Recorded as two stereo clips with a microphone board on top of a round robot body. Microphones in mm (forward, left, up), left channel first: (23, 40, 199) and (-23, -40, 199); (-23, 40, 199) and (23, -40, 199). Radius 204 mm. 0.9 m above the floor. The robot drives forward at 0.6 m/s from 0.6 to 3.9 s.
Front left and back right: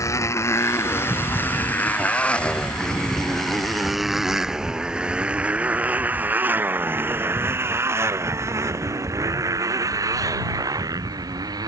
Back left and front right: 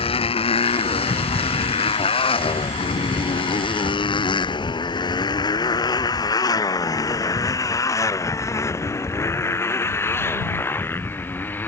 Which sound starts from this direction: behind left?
A motorcycle, at 0.0 s.